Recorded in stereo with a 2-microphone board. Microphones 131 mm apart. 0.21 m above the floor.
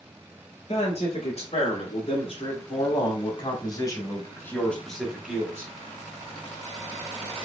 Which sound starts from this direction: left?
A man speaking, at 0.7 s.